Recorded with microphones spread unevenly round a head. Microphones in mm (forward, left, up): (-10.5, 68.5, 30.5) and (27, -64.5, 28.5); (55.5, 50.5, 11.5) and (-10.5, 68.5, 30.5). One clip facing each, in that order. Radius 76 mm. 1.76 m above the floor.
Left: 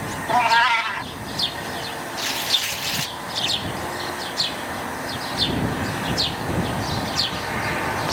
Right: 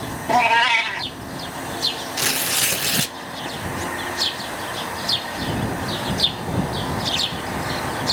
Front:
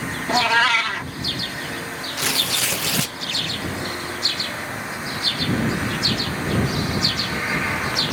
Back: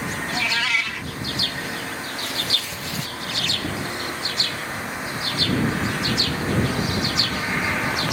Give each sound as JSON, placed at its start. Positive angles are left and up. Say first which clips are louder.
{"t": 0.3, "sound": "a cat meowing", "louder": "right 1 dB, front 8 dB", "azimuth_deg": -30}
{"t": 2.2, "sound": "tearing paper", "louder": "right 2 dB, front 3 dB", "azimuth_deg": -40}